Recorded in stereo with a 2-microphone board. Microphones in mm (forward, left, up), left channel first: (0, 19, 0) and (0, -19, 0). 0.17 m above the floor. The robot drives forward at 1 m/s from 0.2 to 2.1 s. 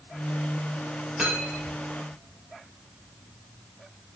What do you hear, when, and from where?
1.2 s cutlery clinking: 5° right (ahead or behind), 2.5 m; by 1.8 s 10° right (ahead or behind), 1.8 m